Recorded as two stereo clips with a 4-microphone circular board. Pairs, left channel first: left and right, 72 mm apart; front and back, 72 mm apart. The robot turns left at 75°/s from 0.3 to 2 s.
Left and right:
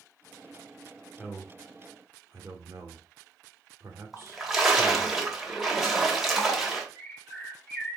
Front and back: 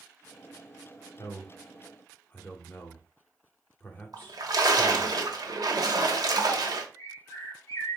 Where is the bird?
5° left, 1.4 m.